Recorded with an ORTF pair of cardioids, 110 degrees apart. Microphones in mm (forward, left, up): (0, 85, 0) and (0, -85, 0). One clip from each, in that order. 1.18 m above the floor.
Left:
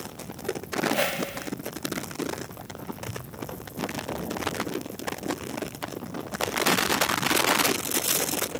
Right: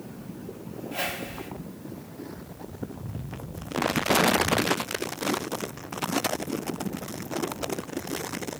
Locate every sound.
0.9 s a whoosh: 20° left, 1.7 m